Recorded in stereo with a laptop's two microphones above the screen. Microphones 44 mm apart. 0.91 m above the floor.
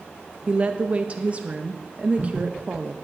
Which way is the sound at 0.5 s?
30° right (ahead or behind).